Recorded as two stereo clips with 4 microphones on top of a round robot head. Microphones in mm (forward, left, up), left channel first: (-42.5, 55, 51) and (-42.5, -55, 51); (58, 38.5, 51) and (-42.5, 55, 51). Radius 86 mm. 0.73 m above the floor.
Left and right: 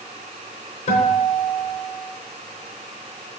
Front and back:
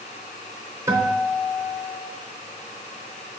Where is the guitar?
105° left, 0.8 m.